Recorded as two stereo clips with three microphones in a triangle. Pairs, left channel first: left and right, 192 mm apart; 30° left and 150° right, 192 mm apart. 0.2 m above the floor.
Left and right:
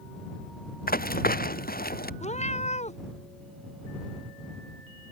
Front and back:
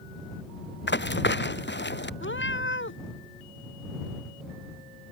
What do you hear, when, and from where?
0.9 s running footsteps: 50° left
2.2 s a cat meowing: 35° left